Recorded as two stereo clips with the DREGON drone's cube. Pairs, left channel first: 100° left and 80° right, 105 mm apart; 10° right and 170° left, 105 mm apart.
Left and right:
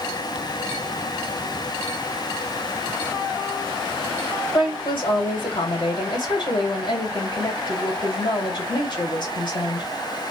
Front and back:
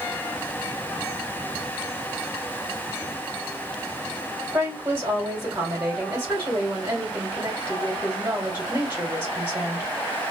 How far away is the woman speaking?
About 1.6 m.